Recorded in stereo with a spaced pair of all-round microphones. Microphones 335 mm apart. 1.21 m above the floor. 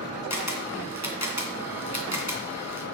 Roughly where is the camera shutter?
Left.